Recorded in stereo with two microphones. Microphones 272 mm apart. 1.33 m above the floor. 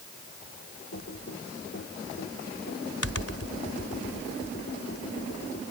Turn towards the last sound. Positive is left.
turn(degrees=55)  # may be behind; listen again after turning